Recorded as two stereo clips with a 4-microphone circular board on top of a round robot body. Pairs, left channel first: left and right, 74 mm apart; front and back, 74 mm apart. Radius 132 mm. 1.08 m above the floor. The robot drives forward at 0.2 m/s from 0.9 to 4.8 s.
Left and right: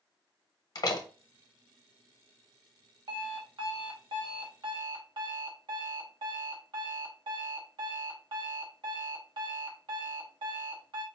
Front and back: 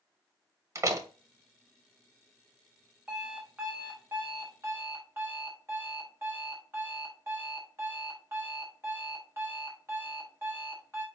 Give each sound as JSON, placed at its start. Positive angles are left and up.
{"t": 0.8, "sound": "a door slam", "azimuth_deg": 130, "distance_m": 0.8}
{"t": 3.1, "sound": "an alarm clock", "azimuth_deg": -100, "distance_m": 1.0}